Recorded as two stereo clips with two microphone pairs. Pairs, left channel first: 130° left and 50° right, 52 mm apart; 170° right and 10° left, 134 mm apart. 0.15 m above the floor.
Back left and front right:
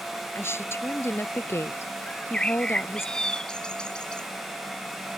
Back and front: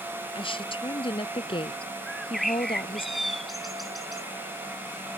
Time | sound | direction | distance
0.3 | a woman speaking | 150° left | ?
2.1 | a bird | 100° left | ?